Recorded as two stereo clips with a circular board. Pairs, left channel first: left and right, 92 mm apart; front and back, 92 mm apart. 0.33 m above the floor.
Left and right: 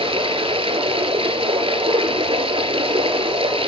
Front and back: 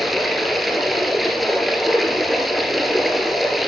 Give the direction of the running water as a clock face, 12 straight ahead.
3 o'clock.